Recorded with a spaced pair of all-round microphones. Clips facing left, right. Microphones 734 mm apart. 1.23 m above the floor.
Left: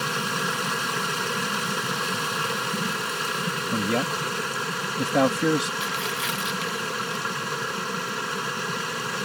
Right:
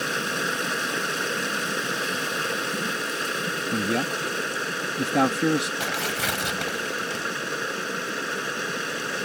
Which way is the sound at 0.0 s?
35° left (ahead or behind).